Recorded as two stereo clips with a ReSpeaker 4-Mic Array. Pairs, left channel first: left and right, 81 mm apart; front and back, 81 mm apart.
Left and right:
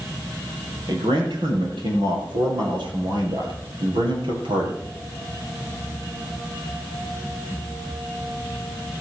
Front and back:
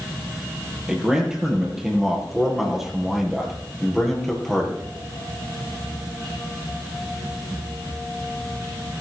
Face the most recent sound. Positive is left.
turn(degrees=-85)